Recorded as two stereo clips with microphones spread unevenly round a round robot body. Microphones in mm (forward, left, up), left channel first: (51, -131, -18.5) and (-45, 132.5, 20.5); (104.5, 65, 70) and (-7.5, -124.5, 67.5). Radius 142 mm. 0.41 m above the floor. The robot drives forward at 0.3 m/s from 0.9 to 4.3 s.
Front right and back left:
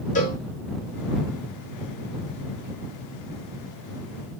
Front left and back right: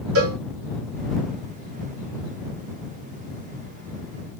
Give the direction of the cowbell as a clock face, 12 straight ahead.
4 o'clock.